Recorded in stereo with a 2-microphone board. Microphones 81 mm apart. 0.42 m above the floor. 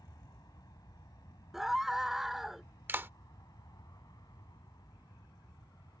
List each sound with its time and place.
0.0 s an aircraft: 55° left (ahead or behind)
1.5 s a scream: 5° right (ahead or behind)
2.9 s a clap: 25° right (ahead or behind)